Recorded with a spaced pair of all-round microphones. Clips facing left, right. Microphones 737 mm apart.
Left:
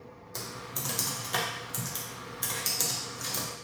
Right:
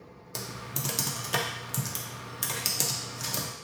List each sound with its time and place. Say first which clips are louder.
0.3 s typing on a keyboard: right 2 dB; 55° right (ahead or behind), 0.6 m